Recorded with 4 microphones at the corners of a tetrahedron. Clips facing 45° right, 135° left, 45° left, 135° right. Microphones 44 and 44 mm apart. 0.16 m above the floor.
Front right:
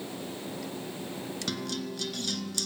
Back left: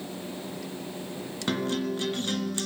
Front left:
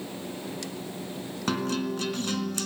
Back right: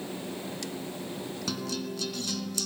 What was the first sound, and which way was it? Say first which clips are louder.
A guitar: back left 9 dB, front left 8 dB; 80° left.